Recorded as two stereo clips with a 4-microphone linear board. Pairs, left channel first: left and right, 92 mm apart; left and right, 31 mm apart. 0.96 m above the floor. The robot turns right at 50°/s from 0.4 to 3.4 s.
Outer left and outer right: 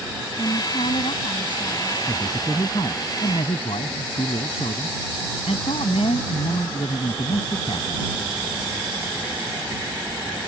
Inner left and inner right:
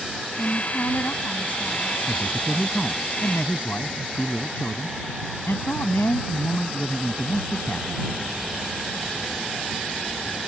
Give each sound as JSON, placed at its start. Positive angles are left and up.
{"t": 0.4, "sound": "a woman speaking", "azimuth_deg": 65}
{"t": 2.1, "sound": "a man speaking", "azimuth_deg": 20}